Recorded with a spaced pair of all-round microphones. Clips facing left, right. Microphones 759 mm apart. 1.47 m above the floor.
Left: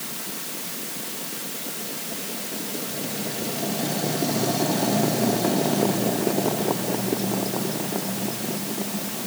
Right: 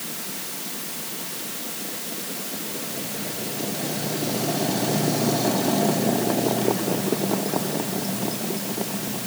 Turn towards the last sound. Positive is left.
No sound to turn to.